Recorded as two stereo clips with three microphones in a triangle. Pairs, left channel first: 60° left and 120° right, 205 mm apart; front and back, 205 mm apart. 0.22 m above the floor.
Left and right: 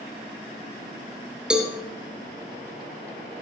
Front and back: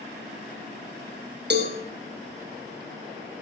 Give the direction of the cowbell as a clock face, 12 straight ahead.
7 o'clock.